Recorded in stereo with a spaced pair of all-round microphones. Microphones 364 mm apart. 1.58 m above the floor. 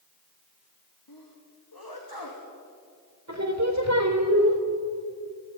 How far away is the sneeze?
About 2.5 m.